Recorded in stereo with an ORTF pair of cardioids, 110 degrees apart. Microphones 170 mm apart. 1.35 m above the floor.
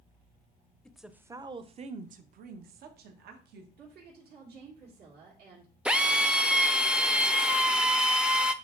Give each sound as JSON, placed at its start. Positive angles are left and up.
{"t": 0.8, "sound": "a woman speaking", "azimuth_deg": 5, "distance_m": 0.7}
{"t": 3.8, "sound": "a woman speaking", "azimuth_deg": -70, "distance_m": 2.0}
{"t": 5.8, "sound": "a drill", "azimuth_deg": -5, "distance_m": 0.6}